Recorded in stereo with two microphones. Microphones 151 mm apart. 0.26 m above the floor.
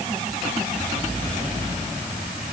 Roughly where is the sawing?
No sawing in this recording.